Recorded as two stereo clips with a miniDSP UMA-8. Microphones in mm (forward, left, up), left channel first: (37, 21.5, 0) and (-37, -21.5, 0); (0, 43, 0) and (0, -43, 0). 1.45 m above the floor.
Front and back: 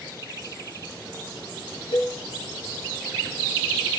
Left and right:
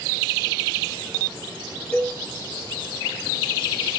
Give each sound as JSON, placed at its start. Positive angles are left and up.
{"t": 1.9, "sound": "a cowbell", "azimuth_deg": 20, "distance_m": 2.0}